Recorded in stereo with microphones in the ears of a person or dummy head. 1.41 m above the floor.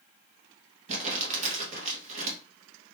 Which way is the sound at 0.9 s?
40° right (ahead or behind).